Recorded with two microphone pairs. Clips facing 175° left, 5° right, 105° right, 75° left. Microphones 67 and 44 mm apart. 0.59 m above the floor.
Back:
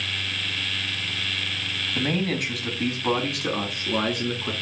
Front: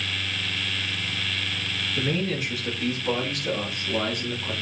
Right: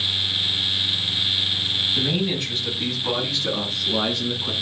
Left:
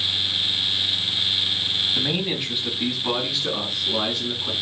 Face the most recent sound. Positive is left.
turn(degrees=170)